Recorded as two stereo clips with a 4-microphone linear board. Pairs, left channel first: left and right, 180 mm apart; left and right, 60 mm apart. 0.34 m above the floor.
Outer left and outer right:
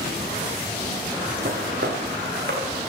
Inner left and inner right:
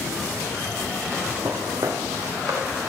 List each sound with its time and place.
1.4 s footsteps: 75° right (ahead or behind), 2.5 m; by 2.7 s 80° right, 3 m